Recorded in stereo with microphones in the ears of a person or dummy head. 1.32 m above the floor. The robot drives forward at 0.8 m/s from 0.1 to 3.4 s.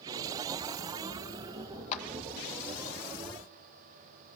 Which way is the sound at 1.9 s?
40° left (ahead or behind).